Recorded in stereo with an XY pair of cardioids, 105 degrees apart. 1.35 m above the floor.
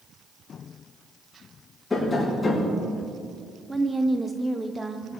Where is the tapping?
20° left, 5 m.